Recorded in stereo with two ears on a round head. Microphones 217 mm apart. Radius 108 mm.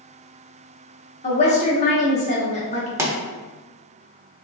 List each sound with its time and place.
1.2 s a woman speaking: 30° left (ahead or behind), 0.9 m
3.0 s a pop: 10° right (ahead or behind), 0.6 m